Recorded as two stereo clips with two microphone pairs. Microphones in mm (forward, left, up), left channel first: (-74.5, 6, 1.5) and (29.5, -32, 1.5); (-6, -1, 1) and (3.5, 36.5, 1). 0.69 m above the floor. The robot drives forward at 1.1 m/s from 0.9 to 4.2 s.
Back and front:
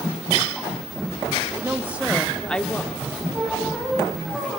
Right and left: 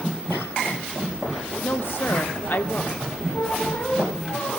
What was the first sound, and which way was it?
A woman speaking, 85° right.